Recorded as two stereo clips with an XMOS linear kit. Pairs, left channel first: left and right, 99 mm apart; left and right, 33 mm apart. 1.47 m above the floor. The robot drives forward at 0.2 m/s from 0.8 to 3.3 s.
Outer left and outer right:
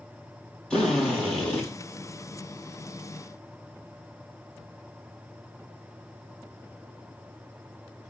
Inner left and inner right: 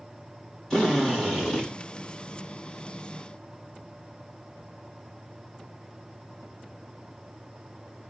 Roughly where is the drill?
Centre.